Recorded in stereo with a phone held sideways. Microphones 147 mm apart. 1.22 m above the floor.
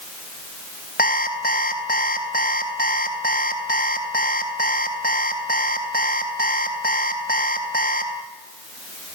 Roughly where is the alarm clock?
Left.